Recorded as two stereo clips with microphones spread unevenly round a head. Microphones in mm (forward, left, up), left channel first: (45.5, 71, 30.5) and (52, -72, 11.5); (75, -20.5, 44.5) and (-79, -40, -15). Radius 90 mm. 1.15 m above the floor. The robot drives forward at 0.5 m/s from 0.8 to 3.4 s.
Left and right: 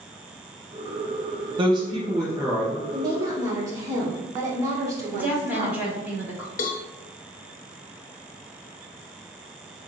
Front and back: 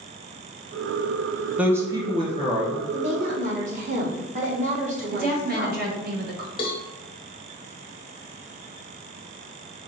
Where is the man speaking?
115° right, 0.6 m; by 2.8 s 155° right, 1.0 m.